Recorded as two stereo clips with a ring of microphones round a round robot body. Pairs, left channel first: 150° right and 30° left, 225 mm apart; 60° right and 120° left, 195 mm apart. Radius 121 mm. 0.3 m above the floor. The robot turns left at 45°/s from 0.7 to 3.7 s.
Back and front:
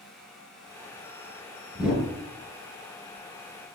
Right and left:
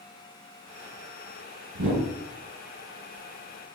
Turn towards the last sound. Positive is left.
turn(degrees=30)